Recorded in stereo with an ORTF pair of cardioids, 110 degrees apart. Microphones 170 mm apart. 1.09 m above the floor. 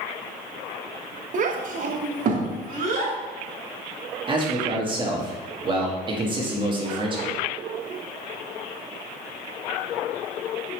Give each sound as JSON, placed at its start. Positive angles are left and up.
{"t": 1.3, "sound": "a child speaking", "azimuth_deg": -50, "distance_m": 0.7}
{"t": 4.3, "sound": "a man speaking", "azimuth_deg": -30, "distance_m": 1.4}